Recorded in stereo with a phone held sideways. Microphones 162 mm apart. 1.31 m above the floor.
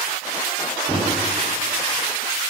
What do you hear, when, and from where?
0.9 s a microwave: 40° right (ahead or behind), 1.3 m